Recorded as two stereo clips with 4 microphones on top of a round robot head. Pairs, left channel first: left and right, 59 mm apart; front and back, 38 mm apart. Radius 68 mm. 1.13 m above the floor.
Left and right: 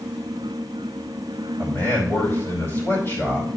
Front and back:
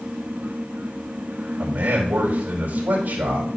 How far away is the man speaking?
About 5 m.